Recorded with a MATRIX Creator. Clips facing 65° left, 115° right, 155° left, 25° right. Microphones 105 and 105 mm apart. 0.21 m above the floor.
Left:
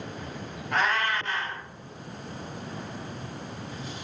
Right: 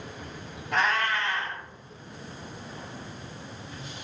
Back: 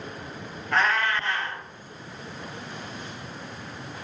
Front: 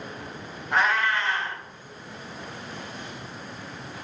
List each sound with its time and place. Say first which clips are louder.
0.7 s a cat meowing: even, front 1 dB; 45° left, 1.3 m